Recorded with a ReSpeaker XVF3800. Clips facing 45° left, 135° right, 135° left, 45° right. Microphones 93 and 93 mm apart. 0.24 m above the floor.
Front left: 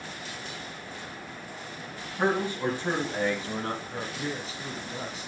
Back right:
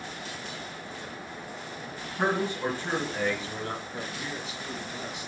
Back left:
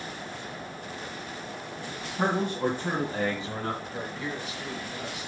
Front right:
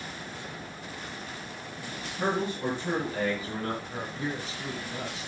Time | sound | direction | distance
2.2 | a man speaking | 135° left | 2.0 m
3.8 | a man speaking | 5° left | 1.9 m